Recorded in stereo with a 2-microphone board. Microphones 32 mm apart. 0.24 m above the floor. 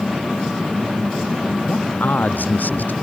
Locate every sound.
1.7 s a man speaking: 85° left